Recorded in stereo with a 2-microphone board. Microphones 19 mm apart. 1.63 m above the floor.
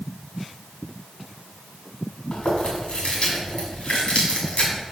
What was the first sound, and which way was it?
Chewing, 80° left.